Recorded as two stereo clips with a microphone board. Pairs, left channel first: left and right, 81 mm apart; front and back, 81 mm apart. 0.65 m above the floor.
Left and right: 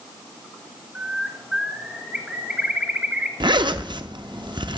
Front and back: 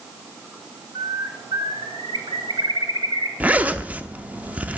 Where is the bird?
165° right, 1.1 m.